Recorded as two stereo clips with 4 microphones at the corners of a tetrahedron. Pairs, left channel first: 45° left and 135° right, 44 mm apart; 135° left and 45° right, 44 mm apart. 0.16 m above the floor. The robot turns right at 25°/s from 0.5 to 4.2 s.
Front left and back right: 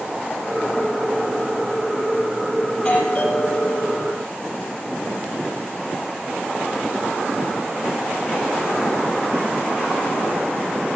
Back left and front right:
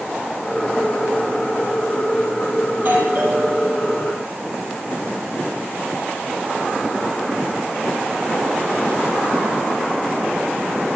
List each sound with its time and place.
2.7 s a doorbell: 10° right, 5 m; by 4.2 s 25° left, 5 m